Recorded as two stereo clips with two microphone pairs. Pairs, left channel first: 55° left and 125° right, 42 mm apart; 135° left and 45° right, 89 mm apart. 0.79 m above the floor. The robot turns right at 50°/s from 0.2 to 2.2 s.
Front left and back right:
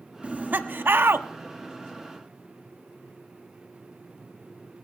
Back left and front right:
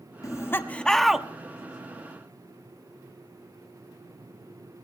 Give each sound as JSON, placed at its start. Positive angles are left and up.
{"t": 0.2, "sound": "laughter", "azimuth_deg": -175, "distance_m": 1.1}